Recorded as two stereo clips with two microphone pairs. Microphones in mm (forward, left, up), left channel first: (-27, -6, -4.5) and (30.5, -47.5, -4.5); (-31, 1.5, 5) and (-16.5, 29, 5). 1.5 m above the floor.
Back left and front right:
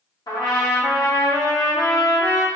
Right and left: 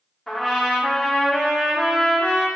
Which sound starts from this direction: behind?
A trumpet, at 0.3 s.